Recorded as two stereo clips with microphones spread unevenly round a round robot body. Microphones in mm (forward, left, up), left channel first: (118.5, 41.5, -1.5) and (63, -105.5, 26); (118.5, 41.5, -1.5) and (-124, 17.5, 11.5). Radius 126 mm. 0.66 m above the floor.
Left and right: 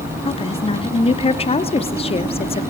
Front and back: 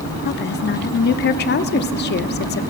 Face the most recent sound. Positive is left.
turn(degrees=40)